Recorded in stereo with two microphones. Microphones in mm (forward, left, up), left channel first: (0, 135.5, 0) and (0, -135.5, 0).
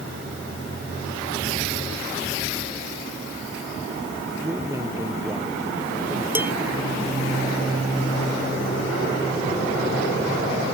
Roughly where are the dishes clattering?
Centre.